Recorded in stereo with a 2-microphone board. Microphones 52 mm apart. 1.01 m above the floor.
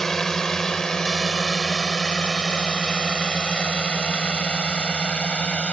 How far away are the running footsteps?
No running footsteps in this recording.